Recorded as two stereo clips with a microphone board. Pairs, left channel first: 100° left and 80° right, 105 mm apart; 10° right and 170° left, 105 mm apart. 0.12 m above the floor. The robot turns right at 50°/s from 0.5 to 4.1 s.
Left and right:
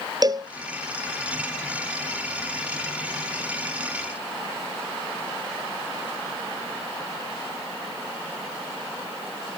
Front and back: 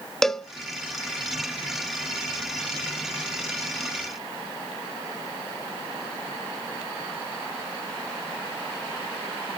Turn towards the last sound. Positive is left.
turn(degrees=85)